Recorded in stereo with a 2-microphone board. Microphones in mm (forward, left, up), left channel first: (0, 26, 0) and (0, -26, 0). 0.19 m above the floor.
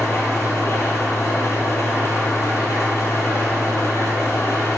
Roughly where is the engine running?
Left.